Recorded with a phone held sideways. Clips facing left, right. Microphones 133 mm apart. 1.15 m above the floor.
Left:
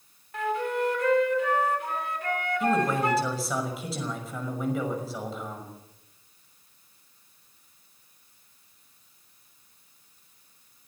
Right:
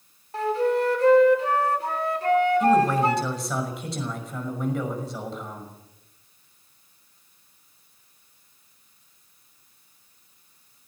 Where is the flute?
35° right (ahead or behind), 3.5 m.